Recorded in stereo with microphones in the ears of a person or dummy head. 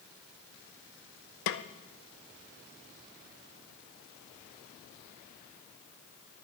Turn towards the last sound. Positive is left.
turn(degrees=65)  # may be behind; listen again after turning